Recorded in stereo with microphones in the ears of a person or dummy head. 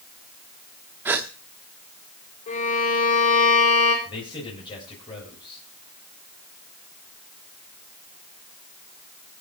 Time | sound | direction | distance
1.1 | a gasp | 10° right (ahead or behind) | 0.9 m
2.5 | a violin | 40° left (ahead or behind) | 5 m
4.0 | a man speaking | 25° left (ahead or behind) | 7 m